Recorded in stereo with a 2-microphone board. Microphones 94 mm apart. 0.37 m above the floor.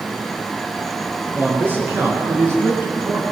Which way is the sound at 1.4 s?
25° right (ahead or behind).